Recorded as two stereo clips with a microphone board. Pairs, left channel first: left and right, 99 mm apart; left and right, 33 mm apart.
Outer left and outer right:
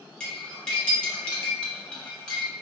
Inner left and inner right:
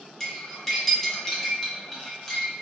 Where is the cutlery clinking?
10° left (ahead or behind), 0.9 m.